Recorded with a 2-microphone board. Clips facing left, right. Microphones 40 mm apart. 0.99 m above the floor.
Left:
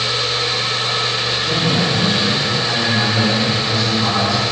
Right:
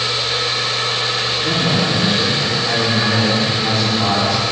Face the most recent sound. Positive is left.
turn(degrees=-65)  # may be behind; listen again after turning